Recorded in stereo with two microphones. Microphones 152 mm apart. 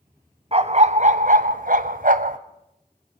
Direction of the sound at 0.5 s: 40° right (ahead or behind).